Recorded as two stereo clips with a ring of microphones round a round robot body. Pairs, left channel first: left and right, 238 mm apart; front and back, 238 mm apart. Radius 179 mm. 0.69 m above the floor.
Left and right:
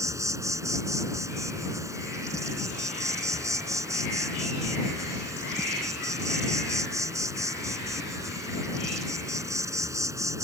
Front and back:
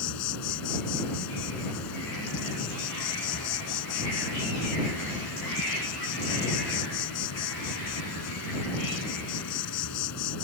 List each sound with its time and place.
0.0 s an insect: 15° right